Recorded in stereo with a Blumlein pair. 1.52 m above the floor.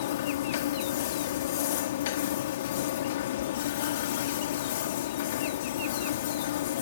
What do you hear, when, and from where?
0.0 s a machine running: 55° left